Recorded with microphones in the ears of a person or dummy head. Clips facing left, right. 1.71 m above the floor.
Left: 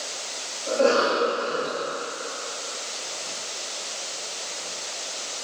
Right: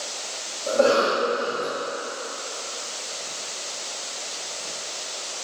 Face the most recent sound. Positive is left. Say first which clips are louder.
# right 1 dB
turn(degrees=-50)  # may be behind; listen again after turning